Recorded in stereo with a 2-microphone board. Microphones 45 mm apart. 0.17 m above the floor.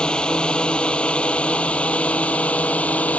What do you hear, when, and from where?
0.0 s a drone: 20° left (ahead or behind); by 3.2 s 35° left (ahead or behind)